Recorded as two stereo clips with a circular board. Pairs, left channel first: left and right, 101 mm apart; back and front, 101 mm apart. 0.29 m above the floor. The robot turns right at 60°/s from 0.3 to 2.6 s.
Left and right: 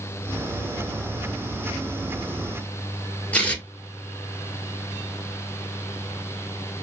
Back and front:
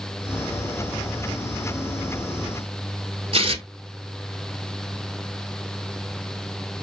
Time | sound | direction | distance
3.3 | tearing paper | 15° left | 1.1 m